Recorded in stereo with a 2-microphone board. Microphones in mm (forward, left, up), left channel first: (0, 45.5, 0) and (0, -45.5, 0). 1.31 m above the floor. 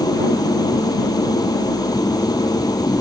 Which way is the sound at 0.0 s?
45° left (ahead or behind).